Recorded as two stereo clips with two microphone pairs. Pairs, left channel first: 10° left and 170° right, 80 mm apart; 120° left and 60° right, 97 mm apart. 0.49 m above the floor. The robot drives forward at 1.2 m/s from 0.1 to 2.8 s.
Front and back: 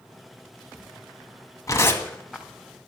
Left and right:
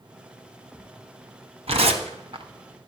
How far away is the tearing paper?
About 1.2 m.